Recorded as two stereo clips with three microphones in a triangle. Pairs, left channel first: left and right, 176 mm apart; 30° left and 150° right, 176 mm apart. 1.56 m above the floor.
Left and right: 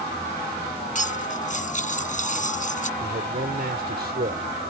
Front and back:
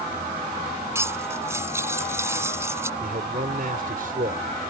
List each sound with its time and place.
0.9 s cutlery clinking: 135° left
3.0 s a man speaking: 115° right